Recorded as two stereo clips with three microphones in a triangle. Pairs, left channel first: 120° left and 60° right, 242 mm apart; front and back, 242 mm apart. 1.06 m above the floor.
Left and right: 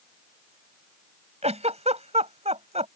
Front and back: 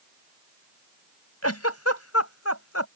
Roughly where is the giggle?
Ahead.